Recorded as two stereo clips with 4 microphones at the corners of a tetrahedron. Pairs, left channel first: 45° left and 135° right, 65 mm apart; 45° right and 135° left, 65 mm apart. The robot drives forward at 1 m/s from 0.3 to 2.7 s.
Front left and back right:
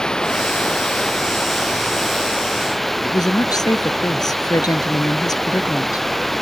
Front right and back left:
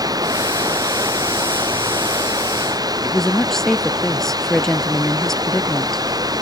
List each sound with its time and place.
0.0 s running water: 125° left; by 6.4 s 130° left
3.0 s a woman speaking: 40° left